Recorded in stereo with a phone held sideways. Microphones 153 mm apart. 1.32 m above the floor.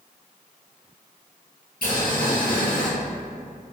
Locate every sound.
1.8 s boiling: 80° left, 1.6 m